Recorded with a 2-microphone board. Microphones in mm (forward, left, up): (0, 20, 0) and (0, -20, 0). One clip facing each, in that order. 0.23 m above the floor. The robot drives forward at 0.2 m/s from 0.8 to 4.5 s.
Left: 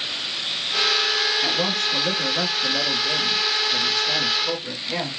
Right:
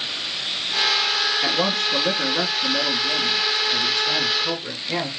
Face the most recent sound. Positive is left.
turn(degrees=-30)  # may be behind; listen again after turning